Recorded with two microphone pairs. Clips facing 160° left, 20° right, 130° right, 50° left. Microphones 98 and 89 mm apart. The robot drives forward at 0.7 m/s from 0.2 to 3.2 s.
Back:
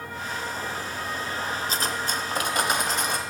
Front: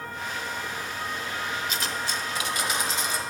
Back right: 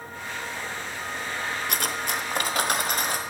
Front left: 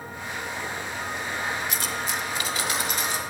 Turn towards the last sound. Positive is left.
turn(degrees=-170)